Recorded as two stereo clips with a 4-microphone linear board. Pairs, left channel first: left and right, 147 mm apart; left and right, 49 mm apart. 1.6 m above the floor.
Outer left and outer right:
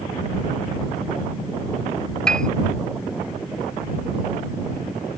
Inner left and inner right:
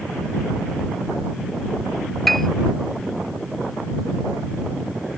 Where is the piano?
5° left (ahead or behind).